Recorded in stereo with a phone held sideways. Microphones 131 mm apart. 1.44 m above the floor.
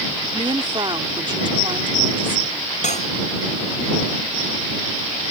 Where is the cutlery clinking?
65° left (ahead or behind).